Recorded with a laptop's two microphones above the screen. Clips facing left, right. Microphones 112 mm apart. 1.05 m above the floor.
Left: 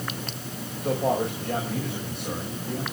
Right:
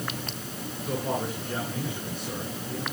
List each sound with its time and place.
0.8 s a man speaking: 75° left (ahead or behind), 5.5 m